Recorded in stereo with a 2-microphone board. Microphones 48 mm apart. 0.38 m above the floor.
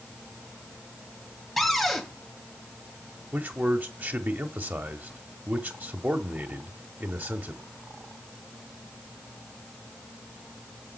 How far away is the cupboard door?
About 1.8 m.